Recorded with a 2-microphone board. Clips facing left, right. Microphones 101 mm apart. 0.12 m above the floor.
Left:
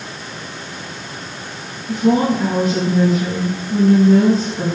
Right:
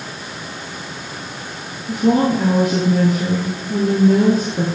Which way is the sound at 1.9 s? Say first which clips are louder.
Even; 55° right (ahead or behind).